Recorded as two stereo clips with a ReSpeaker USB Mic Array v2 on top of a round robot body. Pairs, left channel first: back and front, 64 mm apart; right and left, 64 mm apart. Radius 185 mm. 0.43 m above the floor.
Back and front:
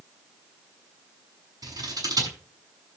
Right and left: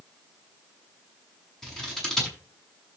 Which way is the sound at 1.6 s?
10° right.